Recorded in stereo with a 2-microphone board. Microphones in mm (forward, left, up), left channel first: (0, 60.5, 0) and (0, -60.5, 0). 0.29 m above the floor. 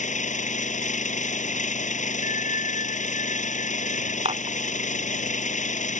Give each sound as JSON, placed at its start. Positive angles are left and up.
{"t": 0.0, "sound": "an engine running", "side_deg": 80}
{"t": 2.2, "sound": "a bell", "side_deg": 80}
{"t": 4.2, "sound": "dishes clattering", "side_deg": -55}